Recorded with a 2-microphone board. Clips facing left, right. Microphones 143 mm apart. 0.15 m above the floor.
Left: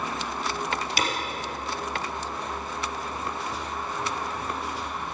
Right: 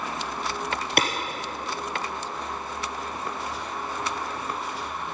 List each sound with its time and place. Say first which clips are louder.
1.0 s a clap: right 5 dB; 60° right (ahead or behind), 2.5 m